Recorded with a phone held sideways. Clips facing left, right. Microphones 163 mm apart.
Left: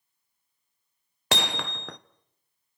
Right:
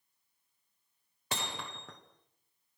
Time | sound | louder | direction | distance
1.3 | hammering | left 10 dB | 80° left | 1.0 m